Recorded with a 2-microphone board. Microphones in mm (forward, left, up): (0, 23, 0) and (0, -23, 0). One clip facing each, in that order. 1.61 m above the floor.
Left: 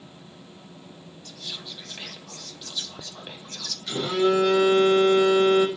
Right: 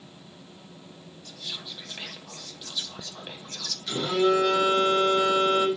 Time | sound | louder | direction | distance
1.2 | whispering | even | 10° right (ahead or behind) | 0.5 m
3.9 | a phone buzzing | left 1 dB | 5° left (ahead or behind) | 2 m